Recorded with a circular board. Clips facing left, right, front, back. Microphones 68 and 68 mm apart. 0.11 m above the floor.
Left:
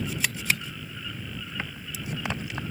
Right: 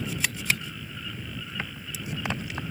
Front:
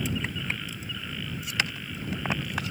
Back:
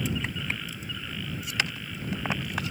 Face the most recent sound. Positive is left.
No sound to turn to.